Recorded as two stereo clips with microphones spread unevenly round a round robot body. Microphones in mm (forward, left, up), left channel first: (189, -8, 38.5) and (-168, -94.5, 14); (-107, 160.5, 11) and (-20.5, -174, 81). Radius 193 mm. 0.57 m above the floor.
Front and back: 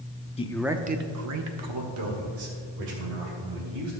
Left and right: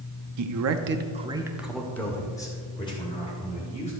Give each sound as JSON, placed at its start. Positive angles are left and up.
{"t": 0.4, "sound": "a man speaking", "azimuth_deg": -55, "distance_m": 0.8}